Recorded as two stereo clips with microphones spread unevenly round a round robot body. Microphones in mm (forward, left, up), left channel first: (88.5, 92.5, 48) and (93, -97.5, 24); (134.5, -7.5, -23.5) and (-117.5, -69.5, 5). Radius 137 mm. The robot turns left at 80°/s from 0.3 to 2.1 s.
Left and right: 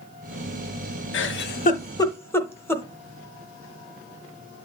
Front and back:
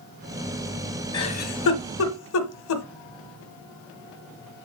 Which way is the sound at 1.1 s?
85° left.